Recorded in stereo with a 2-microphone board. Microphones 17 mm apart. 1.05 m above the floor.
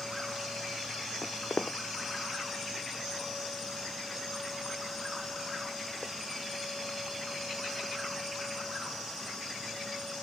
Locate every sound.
1.2 s footsteps: 70° left (ahead or behind); by 8.1 s 50° left (ahead or behind)